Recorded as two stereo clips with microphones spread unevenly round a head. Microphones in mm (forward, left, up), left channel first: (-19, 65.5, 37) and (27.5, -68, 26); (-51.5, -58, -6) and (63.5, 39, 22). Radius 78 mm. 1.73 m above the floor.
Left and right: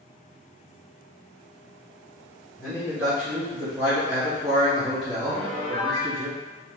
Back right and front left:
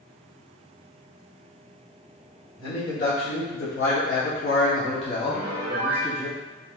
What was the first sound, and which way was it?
A man speaking, 145° right.